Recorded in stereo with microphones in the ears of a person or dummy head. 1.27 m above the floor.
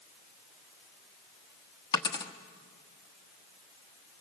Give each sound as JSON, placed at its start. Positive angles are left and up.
{"t": 1.9, "sound": "a dropped coin", "side_deg": 20, "distance_m": 1.0}